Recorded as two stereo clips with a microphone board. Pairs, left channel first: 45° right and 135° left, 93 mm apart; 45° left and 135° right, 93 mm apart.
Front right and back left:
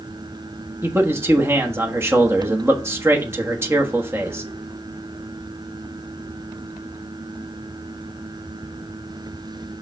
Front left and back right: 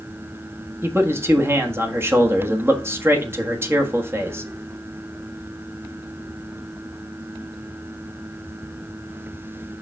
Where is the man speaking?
Straight behind, 1.3 m.